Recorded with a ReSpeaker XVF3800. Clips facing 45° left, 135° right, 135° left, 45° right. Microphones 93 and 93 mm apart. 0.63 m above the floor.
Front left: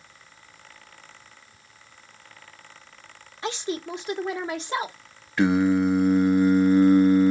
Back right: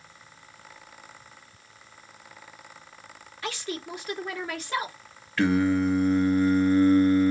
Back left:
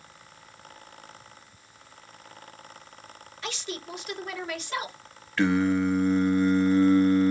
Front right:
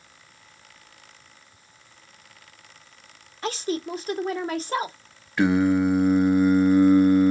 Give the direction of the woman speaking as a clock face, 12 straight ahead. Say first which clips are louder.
Front left 4 dB, front right 9 dB; 12 o'clock.